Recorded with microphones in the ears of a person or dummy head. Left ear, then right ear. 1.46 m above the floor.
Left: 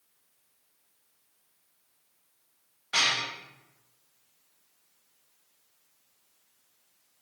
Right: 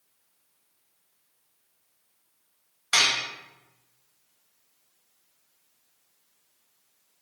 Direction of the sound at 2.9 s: 60° right (ahead or behind).